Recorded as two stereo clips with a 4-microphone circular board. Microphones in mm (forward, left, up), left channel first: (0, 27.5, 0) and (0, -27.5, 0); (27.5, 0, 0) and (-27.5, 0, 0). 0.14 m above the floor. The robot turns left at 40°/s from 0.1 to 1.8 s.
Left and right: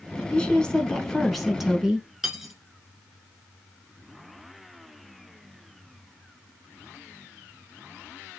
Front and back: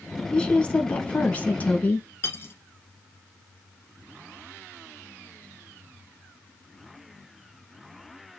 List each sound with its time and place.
0.3 s a woman speaking: 45° left, 1.2 m; by 2.1 s 15° right, 1.2 m
2.2 s cutlery clinking: 10° right, 1.0 m